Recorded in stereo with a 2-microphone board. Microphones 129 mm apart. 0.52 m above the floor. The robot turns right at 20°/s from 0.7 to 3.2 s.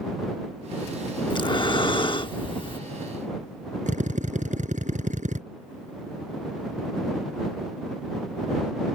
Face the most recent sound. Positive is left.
turn(degrees=-70)  # may be behind; listen again after turning